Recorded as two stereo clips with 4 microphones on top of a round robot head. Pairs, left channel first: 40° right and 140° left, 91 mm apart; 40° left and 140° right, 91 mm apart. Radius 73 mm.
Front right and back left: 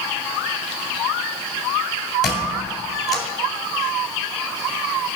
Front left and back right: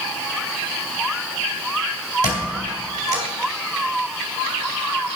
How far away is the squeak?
About 2 m.